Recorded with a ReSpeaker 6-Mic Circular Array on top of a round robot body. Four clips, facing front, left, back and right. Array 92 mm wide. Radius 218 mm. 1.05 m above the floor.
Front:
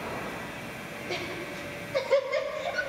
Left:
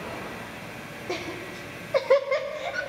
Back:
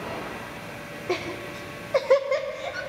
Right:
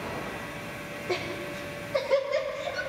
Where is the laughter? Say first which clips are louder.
Right 1 dB, back 7 dB; 175° left, 1.4 m; by 2.8 s 115° left, 1.7 m.